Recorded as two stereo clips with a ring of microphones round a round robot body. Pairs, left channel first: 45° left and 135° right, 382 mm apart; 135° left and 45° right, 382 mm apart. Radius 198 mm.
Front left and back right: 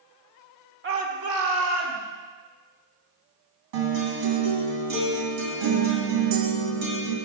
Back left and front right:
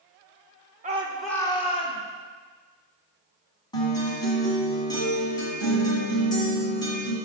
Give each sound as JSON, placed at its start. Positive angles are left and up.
{"t": 0.8, "sound": "a shout", "azimuth_deg": -100, "distance_m": 1.1}
{"t": 3.7, "sound": "a guitar", "azimuth_deg": -145, "distance_m": 2.0}